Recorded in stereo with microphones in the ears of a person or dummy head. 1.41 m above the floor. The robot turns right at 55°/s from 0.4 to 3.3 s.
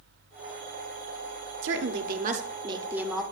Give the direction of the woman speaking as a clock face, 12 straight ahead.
3 o'clock.